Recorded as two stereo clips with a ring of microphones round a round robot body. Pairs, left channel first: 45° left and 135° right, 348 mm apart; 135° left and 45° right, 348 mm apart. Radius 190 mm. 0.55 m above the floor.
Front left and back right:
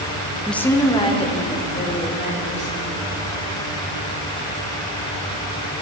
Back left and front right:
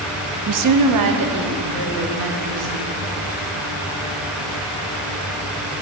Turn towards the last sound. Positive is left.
turn(degrees=-25)